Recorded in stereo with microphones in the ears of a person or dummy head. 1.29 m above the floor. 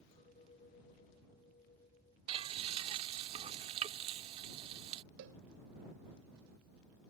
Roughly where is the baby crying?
No baby crying in this recording.